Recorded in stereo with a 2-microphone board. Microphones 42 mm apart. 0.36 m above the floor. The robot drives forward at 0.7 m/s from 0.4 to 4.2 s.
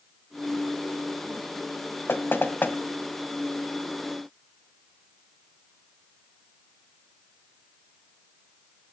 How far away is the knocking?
About 2 m.